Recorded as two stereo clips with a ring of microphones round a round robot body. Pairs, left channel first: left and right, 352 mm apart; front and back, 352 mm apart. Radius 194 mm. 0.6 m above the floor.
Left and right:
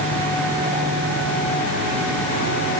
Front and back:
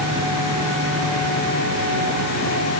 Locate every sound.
Only background noise.